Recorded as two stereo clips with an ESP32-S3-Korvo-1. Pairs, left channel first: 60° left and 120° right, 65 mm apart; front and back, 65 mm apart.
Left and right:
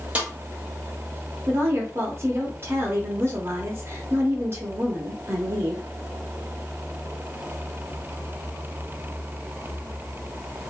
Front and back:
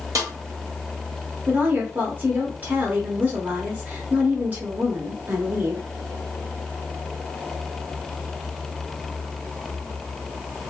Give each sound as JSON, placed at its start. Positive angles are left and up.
{"t": 0.1, "sound": "a snare drum", "azimuth_deg": 175, "distance_m": 1.2}
{"t": 1.5, "sound": "a woman speaking", "azimuth_deg": -130, "distance_m": 1.2}